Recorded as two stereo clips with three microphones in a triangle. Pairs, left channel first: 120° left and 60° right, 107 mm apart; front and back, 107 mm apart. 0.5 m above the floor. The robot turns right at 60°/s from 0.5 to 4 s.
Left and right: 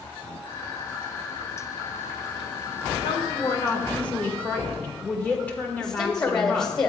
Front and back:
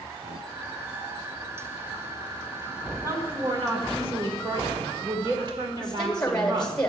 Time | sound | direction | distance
3.0 | a woman speaking | 130° left | 1.6 m
5.8 | a woman speaking | 80° left | 1.6 m